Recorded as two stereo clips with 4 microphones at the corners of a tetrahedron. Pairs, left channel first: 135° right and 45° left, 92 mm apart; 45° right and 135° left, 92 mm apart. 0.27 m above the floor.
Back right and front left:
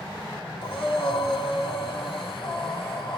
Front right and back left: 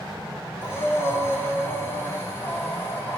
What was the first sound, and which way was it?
Breathing, 110° right.